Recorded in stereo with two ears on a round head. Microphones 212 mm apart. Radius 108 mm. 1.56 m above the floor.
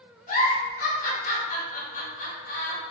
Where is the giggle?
35° left (ahead or behind), 1.0 m.